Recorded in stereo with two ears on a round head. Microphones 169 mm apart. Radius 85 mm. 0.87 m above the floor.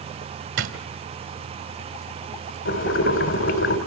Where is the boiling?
75° left (ahead or behind), 2 m.